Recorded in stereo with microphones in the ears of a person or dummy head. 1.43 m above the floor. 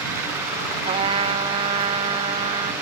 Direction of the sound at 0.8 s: 25° right (ahead or behind).